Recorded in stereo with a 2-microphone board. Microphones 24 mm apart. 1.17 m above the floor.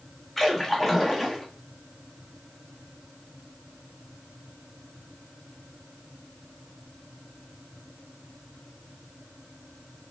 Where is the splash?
15° left (ahead or behind), 0.9 m.